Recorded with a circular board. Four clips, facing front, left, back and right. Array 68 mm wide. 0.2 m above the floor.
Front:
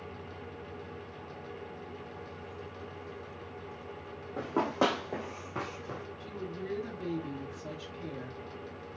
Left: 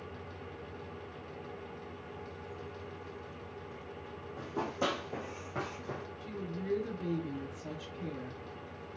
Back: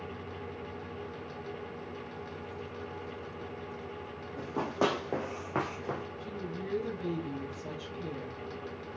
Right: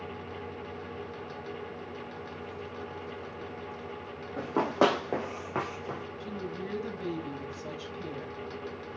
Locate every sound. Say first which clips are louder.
4.4 s running footsteps: right 10 dB, front 2 dB; 55° right, 1.0 m; by 6.0 s 160° right, 1.3 m
6.2 s a woman speaking: right 3 dB, back 1 dB; 90° right, 1.4 m